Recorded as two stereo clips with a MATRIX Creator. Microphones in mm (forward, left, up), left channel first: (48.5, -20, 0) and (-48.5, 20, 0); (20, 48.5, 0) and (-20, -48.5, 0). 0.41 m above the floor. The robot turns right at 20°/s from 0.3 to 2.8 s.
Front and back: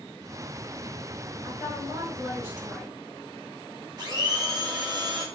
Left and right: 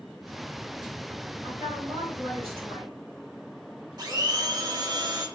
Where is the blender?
155° right, 0.7 m.